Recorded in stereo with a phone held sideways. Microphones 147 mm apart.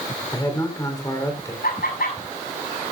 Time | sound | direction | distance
0.3 | a man speaking | 20° left (ahead or behind) | 3 m
1.6 | laughter | 85° left | 7.5 m